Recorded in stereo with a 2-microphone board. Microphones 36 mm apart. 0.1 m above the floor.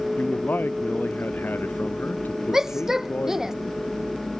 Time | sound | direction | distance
0.2 | a man speaking | 70° left (ahead or behind) | ?
2.5 | a shout | 10° right (ahead or behind) | ?